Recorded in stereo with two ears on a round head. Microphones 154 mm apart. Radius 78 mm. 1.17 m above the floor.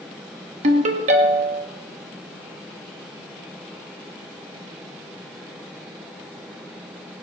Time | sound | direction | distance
0.6 | a ringtone | 45° right (ahead or behind) | 1.5 m